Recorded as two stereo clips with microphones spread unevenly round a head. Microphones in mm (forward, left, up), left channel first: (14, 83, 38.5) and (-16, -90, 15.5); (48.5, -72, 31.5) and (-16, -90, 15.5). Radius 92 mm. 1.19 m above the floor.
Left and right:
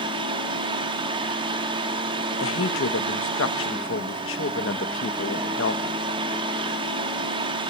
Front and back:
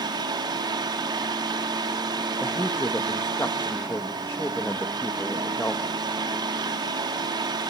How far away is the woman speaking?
About 1.2 m.